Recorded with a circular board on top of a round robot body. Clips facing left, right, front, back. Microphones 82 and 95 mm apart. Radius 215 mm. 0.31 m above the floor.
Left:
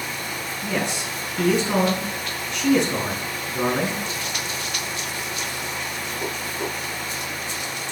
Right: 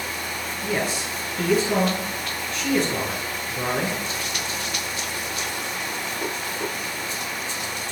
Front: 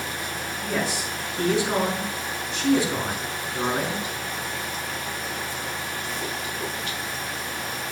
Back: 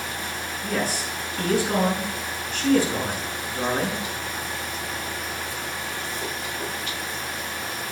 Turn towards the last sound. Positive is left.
turn(degrees=70)